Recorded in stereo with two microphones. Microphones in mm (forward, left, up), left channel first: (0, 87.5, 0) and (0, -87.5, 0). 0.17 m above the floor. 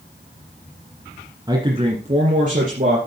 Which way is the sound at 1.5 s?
25° right (ahead or behind).